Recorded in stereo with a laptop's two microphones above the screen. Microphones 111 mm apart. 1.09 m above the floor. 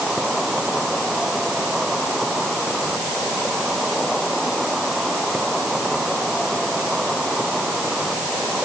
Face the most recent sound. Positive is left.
turn(degrees=0)  # may be behind; listen again after turning